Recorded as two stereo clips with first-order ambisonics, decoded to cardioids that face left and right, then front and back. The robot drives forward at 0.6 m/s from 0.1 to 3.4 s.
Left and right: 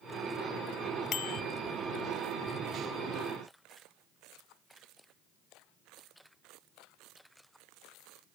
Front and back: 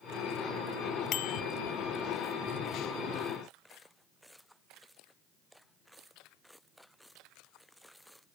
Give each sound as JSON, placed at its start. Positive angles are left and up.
{"t": 1.1, "sound": "a bicycle bell", "azimuth_deg": 40}